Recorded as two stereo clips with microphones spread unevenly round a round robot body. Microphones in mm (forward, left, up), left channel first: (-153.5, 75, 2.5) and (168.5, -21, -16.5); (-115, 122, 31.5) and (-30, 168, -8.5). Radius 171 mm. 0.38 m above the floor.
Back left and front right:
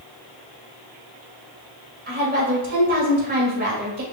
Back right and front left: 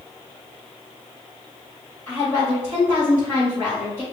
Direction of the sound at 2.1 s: 65° right.